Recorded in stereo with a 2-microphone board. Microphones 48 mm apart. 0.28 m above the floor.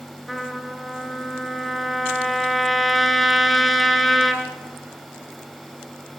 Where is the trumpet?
Centre (ahead or behind), 2.5 m.